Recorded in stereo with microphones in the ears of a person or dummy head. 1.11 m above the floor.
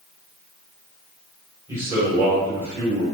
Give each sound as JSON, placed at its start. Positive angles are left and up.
{"t": 1.7, "sound": "a man speaking", "side_deg": -15, "distance_m": 1.5}